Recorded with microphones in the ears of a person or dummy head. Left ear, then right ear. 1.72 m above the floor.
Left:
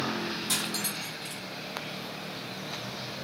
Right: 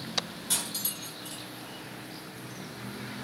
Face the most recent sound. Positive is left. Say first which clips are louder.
# even
turn(degrees=45)  # may be behind; listen again after turning